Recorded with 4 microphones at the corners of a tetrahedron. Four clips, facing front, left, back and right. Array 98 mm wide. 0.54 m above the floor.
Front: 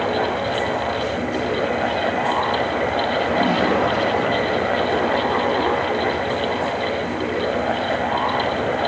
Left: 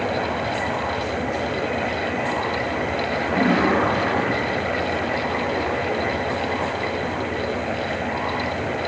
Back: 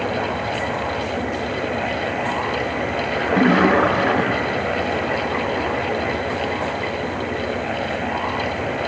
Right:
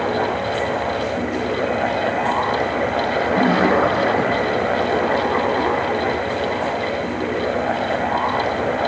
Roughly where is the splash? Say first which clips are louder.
Right 2 dB, back 5 dB; behind.